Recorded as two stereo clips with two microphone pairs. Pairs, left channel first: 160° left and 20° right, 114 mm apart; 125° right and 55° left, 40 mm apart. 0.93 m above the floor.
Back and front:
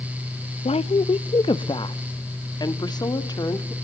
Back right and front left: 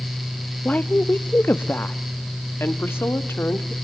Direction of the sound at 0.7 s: 175° right.